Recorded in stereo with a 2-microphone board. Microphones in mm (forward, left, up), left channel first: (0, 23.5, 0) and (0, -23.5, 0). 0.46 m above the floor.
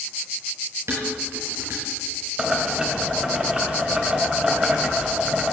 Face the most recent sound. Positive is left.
turn(degrees=-20)  # may be behind; listen again after turning